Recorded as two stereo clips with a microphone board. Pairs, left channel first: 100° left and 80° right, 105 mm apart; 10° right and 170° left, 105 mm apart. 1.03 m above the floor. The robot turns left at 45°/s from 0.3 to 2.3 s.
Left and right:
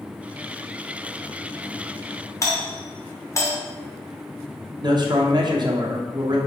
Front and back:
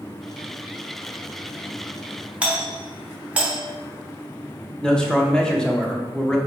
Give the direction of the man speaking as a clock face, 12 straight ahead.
3 o'clock.